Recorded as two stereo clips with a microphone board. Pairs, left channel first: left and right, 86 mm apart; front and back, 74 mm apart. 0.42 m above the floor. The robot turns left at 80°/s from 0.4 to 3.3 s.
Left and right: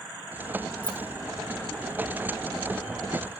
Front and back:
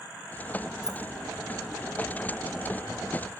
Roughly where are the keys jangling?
Right.